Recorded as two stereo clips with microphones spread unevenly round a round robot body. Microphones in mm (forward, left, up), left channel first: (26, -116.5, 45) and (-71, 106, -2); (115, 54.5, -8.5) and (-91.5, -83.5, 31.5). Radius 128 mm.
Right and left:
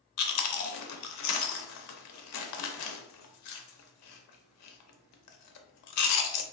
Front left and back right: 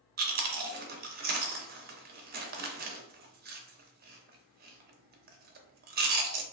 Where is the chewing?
90° right, 0.6 m.